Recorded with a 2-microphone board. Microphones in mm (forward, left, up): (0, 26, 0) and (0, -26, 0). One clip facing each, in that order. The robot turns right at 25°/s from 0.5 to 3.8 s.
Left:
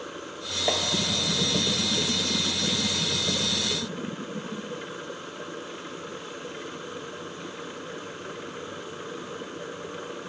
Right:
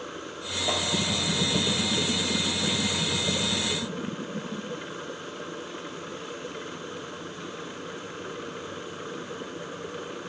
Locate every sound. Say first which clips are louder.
0.7 s tapping: left 2 dB; 40° left (ahead or behind), 1.4 m